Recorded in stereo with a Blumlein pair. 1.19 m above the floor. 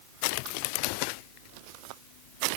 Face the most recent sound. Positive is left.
No sound to turn to.